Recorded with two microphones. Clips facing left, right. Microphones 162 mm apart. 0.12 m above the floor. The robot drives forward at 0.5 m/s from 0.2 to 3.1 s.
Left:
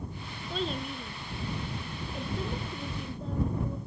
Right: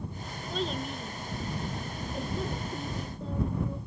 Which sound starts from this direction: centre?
A child speaking, at 0.5 s.